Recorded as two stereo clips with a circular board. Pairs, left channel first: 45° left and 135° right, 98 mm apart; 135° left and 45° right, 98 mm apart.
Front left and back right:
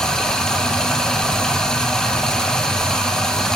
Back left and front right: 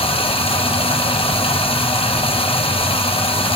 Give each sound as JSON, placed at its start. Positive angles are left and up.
{"t": 0.0, "sound": "running water", "azimuth_deg": 130, "distance_m": 1.0}